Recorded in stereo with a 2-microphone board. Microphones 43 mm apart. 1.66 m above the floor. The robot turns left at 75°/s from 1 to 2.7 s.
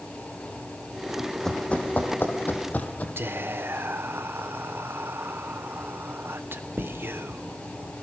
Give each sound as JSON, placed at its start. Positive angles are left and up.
{"t": 1.2, "sound": "running footsteps", "side_deg": -10, "distance_m": 3.5}
{"t": 3.2, "sound": "whispering", "side_deg": -65, "distance_m": 1.2}